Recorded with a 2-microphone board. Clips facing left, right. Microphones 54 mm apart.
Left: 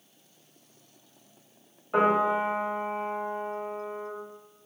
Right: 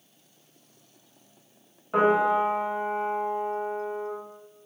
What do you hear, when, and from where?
1.9 s a piano: 5° right (ahead or behind), 1.2 m